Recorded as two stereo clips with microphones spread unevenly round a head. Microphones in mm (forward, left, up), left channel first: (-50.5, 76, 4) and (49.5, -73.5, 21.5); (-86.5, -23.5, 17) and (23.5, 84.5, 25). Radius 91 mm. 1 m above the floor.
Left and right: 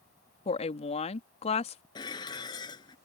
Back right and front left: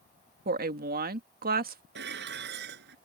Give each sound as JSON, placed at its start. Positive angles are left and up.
{"t": 0.5, "sound": "a woman speaking", "azimuth_deg": 70}
{"t": 1.9, "sound": "dishes clattering", "azimuth_deg": 55}